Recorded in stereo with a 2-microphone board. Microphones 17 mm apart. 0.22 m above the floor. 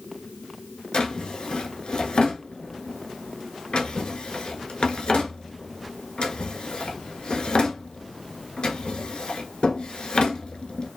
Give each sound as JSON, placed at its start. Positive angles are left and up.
{"t": 0.9, "sound": "a drawer", "side_deg": 80, "distance_m": 0.6}